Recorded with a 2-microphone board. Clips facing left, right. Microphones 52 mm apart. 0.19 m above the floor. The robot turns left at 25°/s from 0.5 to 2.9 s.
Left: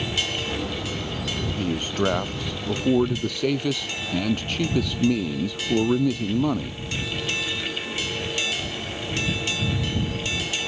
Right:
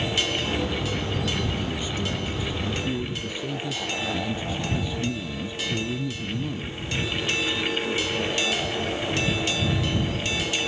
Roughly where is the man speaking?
Behind left.